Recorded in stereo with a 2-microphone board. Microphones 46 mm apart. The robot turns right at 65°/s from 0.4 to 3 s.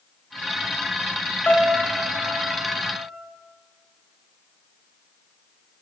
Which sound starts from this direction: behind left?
A piano, at 1.5 s.